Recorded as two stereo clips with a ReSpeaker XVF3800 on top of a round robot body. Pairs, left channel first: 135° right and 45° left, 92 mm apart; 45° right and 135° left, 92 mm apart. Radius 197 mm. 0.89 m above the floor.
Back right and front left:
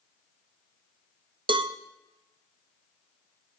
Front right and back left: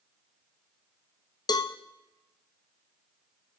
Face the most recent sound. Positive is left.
turn(degrees=5)